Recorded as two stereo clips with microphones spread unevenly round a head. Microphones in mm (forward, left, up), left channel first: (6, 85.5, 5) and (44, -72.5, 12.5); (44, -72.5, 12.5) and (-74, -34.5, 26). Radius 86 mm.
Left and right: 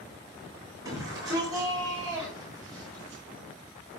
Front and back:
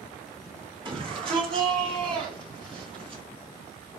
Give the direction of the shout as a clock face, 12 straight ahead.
5 o'clock.